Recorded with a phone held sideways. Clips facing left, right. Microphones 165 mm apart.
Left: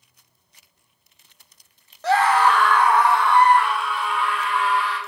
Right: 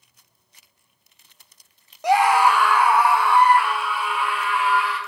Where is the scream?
15° right (ahead or behind), 0.6 m; by 5.0 s 5° right (ahead or behind), 3 m.